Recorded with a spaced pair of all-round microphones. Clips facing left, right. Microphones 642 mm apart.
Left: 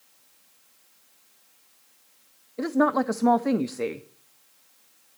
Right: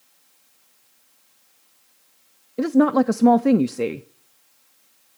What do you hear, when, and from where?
2.6 s a woman speaking: 60° right (ahead or behind), 0.5 m